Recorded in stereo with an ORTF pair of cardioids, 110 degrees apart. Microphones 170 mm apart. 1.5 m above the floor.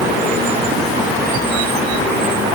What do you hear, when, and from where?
Only background noise.